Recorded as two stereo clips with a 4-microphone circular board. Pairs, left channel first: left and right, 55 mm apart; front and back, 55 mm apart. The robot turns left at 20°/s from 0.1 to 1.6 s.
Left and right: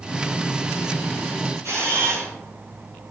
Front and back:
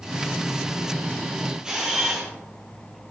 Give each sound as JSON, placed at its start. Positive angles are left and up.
{"t": 1.6, "sound": "a camera shutter", "azimuth_deg": -105, "distance_m": 3.5}